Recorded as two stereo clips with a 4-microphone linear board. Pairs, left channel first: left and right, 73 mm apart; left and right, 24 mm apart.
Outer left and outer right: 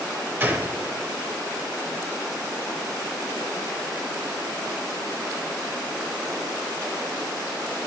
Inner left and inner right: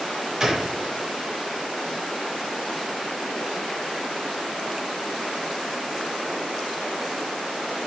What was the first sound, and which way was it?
A gunshot, 25° right (ahead or behind).